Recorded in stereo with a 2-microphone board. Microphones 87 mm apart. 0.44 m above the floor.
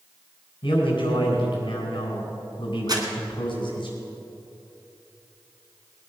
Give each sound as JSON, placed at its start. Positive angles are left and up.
{"t": 0.6, "sound": "a man speaking", "side_deg": 65, "distance_m": 4.0}
{"t": 2.9, "sound": "crumpling", "side_deg": -50, "distance_m": 2.0}